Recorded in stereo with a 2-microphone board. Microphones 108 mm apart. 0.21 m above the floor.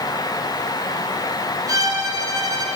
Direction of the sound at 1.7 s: 35° right (ahead or behind).